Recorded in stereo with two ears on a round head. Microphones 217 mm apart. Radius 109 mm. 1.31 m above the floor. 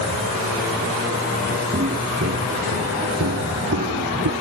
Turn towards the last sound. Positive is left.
turn(degrees=-60)  # may be behind; listen again after turning